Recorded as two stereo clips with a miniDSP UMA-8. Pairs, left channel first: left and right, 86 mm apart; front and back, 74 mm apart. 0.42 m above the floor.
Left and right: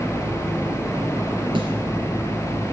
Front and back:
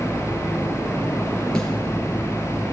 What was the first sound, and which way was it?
A snare drum, 80° right.